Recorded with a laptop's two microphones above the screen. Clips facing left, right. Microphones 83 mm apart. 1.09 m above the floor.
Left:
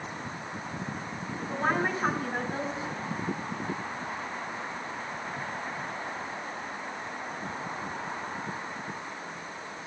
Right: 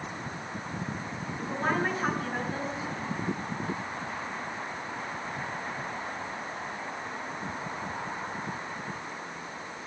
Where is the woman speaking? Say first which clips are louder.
Left 1 dB; centre (ahead or behind), 4.5 m.